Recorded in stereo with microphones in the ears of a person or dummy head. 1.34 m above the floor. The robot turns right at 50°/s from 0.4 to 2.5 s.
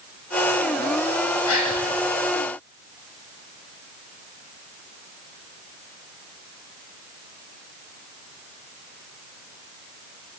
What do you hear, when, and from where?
1.5 s a gasp: 85° left, 8 m; by 1.8 s 80° left, 8 m